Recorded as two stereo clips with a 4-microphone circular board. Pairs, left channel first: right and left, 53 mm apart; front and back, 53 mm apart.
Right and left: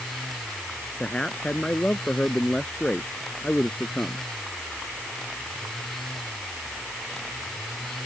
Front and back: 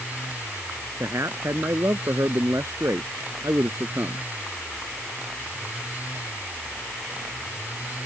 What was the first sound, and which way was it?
A man speaking, 165° right.